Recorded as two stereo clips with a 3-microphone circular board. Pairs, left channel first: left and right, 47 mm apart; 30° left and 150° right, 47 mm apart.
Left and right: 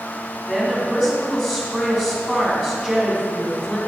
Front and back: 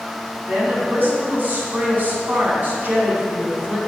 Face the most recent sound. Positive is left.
turn(degrees=175)